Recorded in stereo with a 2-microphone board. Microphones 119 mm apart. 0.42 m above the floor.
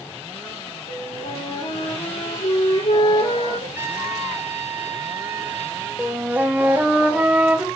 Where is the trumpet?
20° right (ahead or behind), 5.5 m.